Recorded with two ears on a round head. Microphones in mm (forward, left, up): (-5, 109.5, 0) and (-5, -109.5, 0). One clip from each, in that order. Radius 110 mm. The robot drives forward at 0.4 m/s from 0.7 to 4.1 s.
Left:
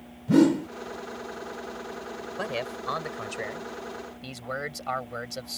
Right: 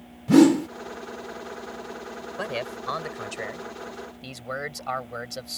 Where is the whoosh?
30° right (ahead or behind).